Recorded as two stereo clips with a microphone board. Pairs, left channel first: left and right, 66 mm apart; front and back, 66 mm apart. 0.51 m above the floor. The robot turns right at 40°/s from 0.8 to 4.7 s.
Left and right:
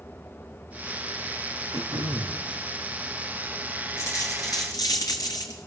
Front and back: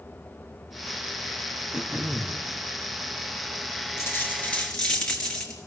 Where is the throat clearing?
105° right, 2 m; by 2.4 s 75° right, 2 m.